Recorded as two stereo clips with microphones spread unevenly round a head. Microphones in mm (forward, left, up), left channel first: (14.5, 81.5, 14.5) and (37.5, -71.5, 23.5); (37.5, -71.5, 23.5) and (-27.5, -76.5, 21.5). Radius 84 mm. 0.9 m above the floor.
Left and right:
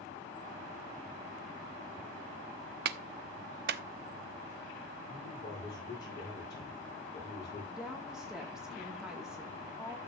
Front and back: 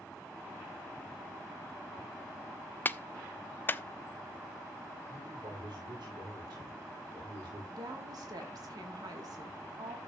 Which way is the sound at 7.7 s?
170° right.